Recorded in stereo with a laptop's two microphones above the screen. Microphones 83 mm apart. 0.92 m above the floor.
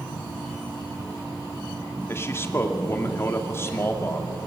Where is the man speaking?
25° left (ahead or behind), 2 m.